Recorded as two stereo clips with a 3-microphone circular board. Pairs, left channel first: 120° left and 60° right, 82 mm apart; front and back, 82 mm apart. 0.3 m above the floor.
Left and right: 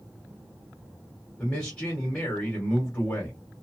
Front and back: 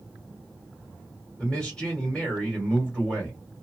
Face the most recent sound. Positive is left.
turn(degrees=60)